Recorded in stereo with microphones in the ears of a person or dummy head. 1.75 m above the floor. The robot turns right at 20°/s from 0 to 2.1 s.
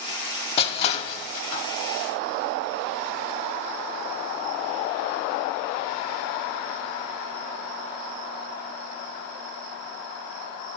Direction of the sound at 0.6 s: 35° left (ahead or behind).